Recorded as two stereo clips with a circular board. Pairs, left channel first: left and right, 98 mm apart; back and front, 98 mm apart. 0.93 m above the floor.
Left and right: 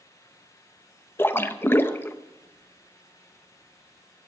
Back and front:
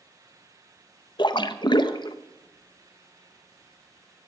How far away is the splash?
About 0.6 m.